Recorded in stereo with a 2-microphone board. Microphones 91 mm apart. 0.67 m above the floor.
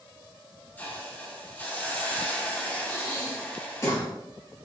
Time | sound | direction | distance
0.8 | a hiss | 15° left (ahead or behind) | 0.9 m
2.9 | breathing | 35° left (ahead or behind) | 1.3 m